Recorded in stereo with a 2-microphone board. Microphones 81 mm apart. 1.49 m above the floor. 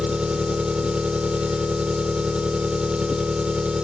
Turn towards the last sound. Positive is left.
turn(degrees=-15)  # may be behind; listen again after turning